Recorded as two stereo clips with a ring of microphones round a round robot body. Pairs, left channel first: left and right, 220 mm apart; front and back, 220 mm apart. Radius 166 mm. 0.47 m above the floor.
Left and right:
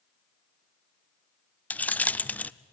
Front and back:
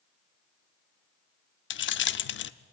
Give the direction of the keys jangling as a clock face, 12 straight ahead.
12 o'clock.